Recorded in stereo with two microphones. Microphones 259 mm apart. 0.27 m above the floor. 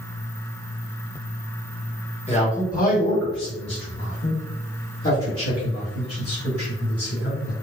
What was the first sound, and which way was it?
A man speaking, 25° left (ahead or behind).